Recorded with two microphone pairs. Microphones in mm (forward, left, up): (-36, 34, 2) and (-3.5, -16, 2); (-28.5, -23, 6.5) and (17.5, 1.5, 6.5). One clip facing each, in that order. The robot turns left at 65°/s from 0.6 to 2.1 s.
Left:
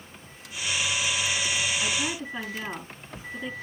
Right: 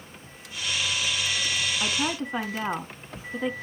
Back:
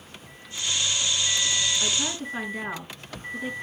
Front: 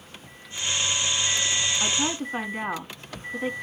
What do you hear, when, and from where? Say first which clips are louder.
1.8 s a woman speaking: right 2 dB, front 2 dB; 15° right, 3.5 m; by 3.5 s 30° right, 3.5 m